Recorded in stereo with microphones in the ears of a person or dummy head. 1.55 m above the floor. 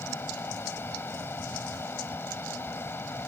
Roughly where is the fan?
Centre.